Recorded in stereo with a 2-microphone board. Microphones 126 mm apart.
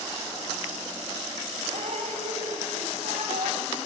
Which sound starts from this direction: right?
Dripping, at 1.7 s.